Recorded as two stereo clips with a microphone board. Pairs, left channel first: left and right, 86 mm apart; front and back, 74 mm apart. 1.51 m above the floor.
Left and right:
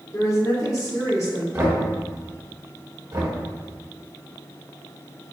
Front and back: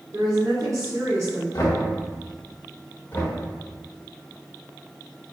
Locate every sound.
0.1 s a woman speaking: 140° left, 1.7 m
1.5 s knocking: 35° right, 1.2 m
3.1 s knocking: 55° right, 1.4 m